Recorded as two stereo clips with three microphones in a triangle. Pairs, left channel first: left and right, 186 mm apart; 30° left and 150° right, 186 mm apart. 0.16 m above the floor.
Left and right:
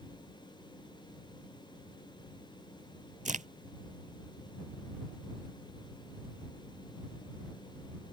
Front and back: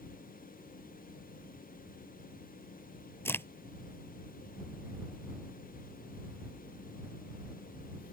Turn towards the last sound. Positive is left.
turn(degrees=-50)